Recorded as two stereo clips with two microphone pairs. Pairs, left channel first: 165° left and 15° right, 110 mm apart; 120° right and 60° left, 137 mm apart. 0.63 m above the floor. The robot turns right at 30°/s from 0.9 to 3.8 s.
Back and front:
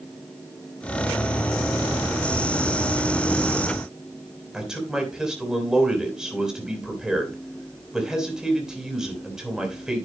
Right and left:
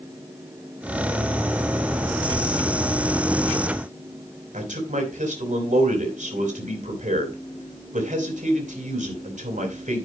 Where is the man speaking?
70° left, 3 m.